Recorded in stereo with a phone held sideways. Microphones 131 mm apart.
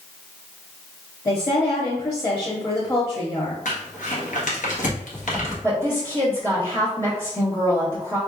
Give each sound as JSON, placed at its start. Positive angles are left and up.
{"t": 1.2, "sound": "a woman speaking", "side_deg": 30, "distance_m": 1.1}
{"t": 3.6, "sound": "crumpling", "side_deg": 70, "distance_m": 1.4}
{"t": 5.6, "sound": "a woman speaking", "side_deg": 15, "distance_m": 1.8}